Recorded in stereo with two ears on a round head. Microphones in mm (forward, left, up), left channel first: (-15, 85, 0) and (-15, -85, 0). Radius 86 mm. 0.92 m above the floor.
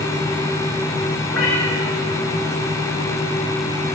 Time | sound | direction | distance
1.3 | a cat meowing | 85° left | 6 m